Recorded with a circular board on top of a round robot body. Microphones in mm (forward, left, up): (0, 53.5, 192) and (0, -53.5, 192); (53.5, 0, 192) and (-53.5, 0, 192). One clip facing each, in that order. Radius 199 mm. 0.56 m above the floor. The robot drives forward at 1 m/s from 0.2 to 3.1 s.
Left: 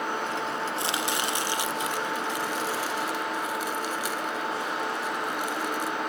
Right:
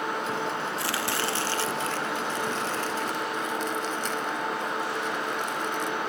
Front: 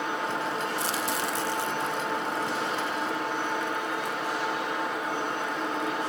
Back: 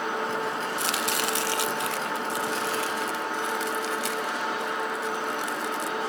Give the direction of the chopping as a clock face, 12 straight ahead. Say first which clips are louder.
Even, back 1 dB; 7 o'clock.